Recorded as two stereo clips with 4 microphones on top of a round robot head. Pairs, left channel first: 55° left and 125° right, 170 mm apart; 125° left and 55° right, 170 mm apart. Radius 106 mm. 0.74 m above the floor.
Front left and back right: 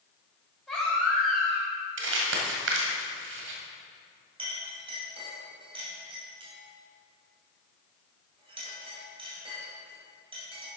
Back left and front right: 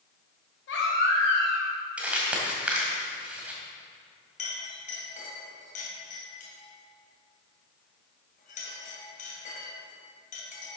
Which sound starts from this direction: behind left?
A baby crying, at 0.7 s.